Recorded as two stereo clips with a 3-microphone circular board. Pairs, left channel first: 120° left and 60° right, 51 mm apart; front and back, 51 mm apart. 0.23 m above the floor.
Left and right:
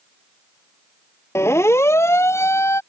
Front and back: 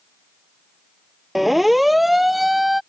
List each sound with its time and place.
1.4 s a siren: 90° left